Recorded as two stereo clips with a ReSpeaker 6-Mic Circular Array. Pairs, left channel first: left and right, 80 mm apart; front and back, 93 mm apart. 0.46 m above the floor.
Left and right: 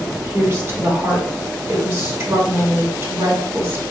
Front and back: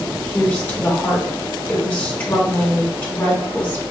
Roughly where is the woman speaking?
Ahead right.